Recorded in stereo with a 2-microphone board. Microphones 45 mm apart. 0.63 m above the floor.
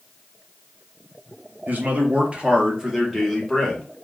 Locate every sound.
1.7 s a man speaking: 45° right (ahead or behind), 0.8 m; by 3.8 s 5° left (ahead or behind), 1.1 m